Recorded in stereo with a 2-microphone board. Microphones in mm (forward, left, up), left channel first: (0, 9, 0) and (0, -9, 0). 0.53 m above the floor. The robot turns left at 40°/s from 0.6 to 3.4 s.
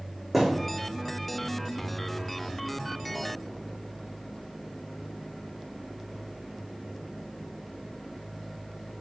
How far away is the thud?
About 3.5 m.